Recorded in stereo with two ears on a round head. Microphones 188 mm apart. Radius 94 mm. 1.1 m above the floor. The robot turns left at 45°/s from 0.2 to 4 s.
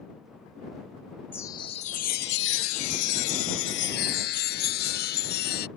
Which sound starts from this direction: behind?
A chime, at 1.3 s.